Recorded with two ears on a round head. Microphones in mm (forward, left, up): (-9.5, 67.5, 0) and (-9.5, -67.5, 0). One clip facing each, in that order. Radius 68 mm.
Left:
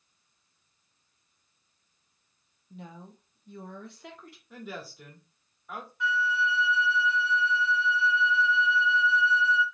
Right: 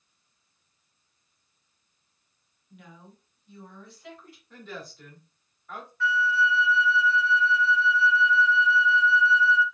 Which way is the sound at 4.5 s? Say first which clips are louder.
Left 1 dB; 5° left (ahead or behind).